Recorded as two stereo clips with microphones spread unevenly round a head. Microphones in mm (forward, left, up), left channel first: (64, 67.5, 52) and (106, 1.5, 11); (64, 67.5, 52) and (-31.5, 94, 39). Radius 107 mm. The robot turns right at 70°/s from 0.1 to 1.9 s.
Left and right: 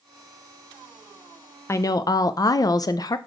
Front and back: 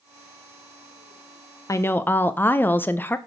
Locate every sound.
1.7 s a woman speaking: 45° left, 0.5 m; by 3.2 s 60° left, 0.5 m